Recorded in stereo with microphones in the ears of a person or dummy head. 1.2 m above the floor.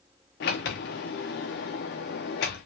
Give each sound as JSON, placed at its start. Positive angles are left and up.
{"t": 0.4, "sound": "a sliding door", "side_deg": 45, "distance_m": 0.8}